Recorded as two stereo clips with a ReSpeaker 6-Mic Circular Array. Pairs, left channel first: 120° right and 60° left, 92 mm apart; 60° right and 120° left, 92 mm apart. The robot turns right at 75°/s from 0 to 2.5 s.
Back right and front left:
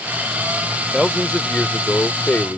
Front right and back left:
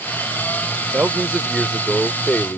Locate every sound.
0.9 s a man speaking: 150° left; by 2.6 s 95° right